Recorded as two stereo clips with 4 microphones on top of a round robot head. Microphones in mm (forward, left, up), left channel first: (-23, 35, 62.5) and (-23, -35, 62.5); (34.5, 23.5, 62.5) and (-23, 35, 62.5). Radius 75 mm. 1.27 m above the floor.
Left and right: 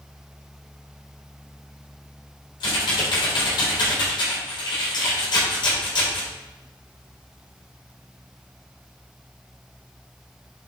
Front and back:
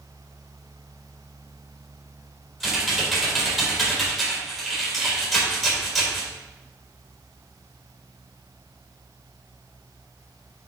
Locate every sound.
2.6 s typing on a keyboard: 85° left, 4 m